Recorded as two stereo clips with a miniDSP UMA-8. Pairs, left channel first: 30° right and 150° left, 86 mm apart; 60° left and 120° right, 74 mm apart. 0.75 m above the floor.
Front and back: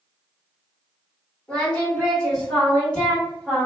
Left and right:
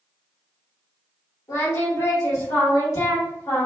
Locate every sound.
1.5 s singing: 45° left, 1.4 m